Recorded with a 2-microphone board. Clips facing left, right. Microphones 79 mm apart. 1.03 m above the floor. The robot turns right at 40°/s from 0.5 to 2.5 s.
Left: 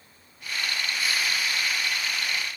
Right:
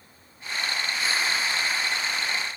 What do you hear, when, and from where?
Only background noise.